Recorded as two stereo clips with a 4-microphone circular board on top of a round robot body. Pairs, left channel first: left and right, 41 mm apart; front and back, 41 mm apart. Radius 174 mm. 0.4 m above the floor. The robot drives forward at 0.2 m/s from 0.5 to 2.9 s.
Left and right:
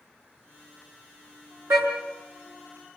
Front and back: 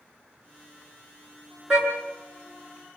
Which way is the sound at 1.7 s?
100° right.